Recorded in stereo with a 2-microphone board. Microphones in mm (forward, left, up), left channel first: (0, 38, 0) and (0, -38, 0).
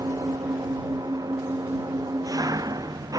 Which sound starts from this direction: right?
An engine running, at 0.0 s.